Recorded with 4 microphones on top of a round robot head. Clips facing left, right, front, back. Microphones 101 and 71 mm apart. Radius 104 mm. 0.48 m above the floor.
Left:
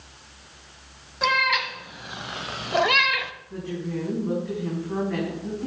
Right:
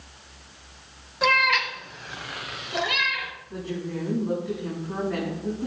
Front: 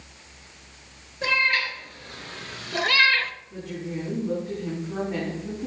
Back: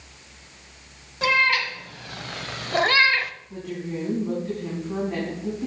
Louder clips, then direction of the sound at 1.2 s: Right 1 dB, back 3 dB; straight behind.